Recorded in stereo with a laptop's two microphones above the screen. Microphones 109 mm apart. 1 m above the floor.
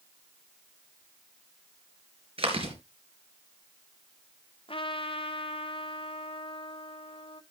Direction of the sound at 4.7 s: 55° left (ahead or behind).